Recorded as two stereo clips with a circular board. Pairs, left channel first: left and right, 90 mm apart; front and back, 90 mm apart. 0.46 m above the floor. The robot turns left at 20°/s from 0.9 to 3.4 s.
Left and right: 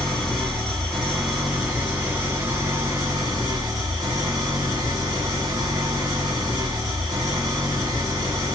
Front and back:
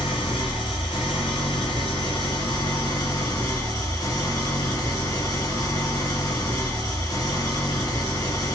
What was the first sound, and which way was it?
An engine running, 5° left.